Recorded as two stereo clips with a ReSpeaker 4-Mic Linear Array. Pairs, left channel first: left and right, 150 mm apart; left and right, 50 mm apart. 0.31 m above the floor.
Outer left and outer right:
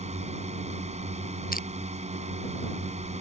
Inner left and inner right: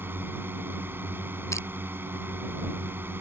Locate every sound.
0.0 s a drone: 50° right (ahead or behind)
1.5 s crushing: 80° left